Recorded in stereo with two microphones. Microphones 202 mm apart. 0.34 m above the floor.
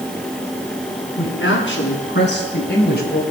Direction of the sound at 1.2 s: 70° left (ahead or behind).